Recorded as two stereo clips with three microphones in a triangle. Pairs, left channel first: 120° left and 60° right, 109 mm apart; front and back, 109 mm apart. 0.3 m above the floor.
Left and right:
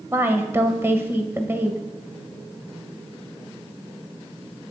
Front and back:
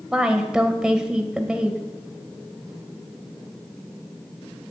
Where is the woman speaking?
105° right, 1.0 m.